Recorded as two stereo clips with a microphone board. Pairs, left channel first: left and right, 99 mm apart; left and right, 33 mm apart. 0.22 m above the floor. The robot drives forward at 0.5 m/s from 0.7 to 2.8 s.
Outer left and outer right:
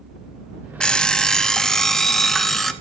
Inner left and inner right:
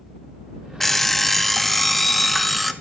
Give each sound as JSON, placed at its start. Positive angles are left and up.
{"t": 0.8, "sound": "an alarm clock", "side_deg": 10, "distance_m": 0.5}